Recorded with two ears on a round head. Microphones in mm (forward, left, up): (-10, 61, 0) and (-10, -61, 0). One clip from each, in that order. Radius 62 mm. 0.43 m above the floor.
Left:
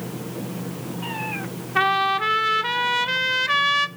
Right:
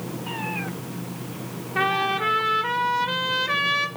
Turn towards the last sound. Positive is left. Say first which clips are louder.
# left 3 dB
turn(degrees=35)  # may be behind; listen again after turning